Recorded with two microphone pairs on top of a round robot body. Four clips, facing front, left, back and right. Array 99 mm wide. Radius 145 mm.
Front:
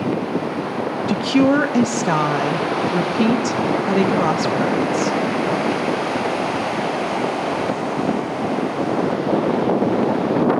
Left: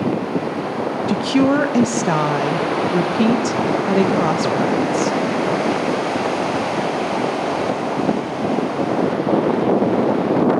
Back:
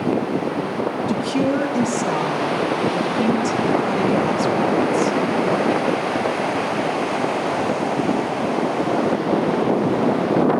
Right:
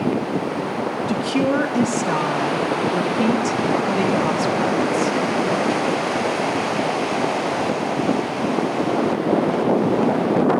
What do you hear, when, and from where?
1.1 s a woman speaking: 45° left, 1.8 m